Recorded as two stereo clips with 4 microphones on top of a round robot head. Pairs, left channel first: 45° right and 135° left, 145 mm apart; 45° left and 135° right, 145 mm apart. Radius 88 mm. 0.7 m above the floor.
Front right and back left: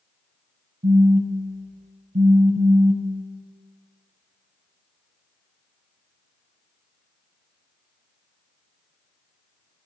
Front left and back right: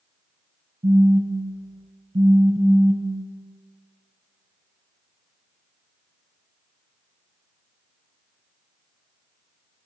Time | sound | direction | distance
0.8 | a phone buzzing | 170° left | 0.6 m